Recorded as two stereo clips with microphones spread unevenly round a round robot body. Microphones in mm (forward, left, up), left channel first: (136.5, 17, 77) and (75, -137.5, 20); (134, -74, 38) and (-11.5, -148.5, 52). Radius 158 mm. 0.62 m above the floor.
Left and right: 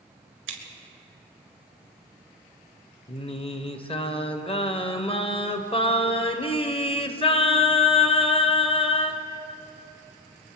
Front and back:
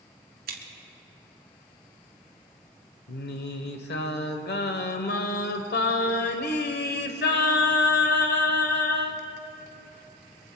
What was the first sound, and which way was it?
Scissors, 135° right.